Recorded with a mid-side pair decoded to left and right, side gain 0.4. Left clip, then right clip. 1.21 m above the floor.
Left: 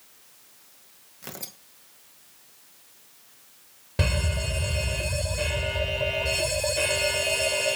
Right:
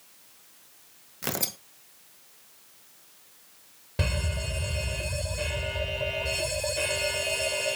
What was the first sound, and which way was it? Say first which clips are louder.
Tearing paper: right 9 dB; 70° right.